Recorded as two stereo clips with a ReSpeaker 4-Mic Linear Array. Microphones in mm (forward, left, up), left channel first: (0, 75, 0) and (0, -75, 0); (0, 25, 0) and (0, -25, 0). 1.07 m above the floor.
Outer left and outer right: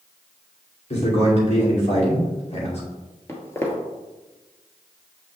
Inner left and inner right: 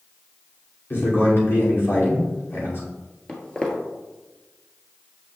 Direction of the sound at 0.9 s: 50° left (ahead or behind).